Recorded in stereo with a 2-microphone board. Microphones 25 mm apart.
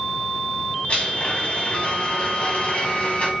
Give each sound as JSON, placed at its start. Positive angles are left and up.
{"t": 0.9, "sound": "a blender", "side_deg": 65, "distance_m": 3.0}